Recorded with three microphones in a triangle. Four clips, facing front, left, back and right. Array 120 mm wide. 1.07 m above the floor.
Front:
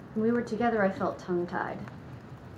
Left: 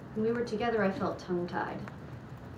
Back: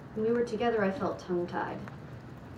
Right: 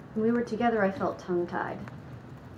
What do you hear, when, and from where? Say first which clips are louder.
0.1 s a woman speaking: right 4 dB, front 1 dB; 45° right, 0.5 m